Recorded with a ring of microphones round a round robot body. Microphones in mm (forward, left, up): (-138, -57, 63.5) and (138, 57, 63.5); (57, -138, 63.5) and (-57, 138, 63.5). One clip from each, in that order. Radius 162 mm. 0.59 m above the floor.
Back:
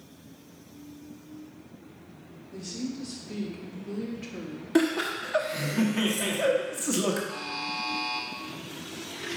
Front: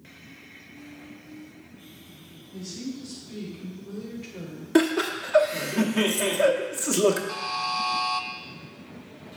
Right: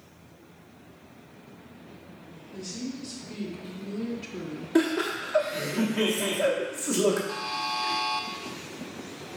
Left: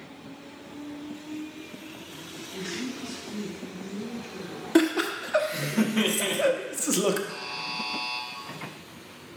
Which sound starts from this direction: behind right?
A woman speaking, at 2.5 s.